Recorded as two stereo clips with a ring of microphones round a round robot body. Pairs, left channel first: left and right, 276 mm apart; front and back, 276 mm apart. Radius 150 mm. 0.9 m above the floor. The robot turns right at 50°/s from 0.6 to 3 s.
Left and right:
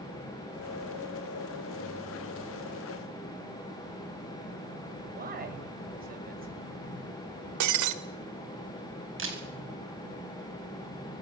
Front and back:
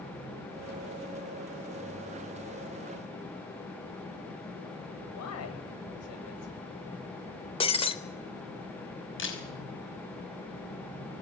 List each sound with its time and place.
5.1 s a man speaking: 30° right, 5 m
7.6 s breaking glass: 70° right, 1.5 m
9.2 s a camera shutter: 45° right, 5.5 m